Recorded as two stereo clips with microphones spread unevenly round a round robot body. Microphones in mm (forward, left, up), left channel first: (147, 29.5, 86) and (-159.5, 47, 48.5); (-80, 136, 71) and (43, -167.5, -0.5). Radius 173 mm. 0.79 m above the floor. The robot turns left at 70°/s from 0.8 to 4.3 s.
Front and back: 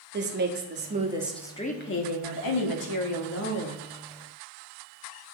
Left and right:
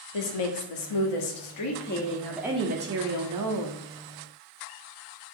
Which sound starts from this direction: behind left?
A woman speaking, at 0.1 s.